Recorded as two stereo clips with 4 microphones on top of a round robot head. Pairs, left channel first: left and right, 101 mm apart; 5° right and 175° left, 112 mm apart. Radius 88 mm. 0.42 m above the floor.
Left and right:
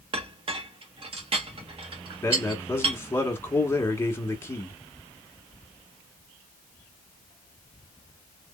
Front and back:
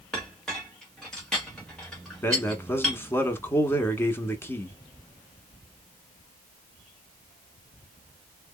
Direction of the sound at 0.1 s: 90° right.